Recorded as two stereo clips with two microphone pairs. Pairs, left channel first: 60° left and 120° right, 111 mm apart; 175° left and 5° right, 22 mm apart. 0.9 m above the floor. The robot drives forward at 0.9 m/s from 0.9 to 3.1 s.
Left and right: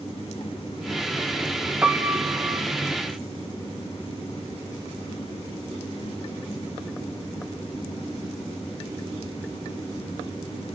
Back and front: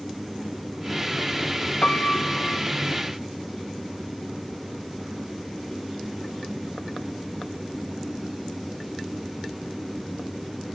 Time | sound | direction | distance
1.8 | a piano | 165° left | 1.3 m